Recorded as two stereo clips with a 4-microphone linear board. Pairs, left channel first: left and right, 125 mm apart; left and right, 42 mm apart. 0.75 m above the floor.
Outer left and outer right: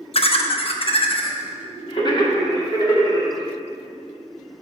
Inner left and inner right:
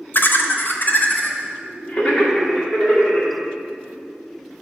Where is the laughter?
50° left (ahead or behind), 0.6 m; by 3.4 s 35° left (ahead or behind), 1.9 m.